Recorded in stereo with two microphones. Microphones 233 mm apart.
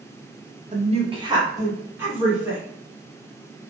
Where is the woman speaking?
30° right (ahead or behind), 0.6 m; by 2.6 s 5° right (ahead or behind), 1.7 m.